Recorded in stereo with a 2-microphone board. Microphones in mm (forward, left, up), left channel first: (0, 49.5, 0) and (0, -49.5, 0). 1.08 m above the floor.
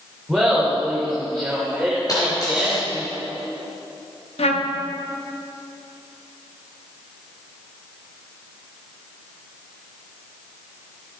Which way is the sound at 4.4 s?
85° left.